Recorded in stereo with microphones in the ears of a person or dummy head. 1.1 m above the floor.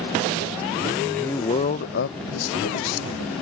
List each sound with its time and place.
1.0 s a man speaking: 5° right (ahead or behind); by 3.2 s 80° left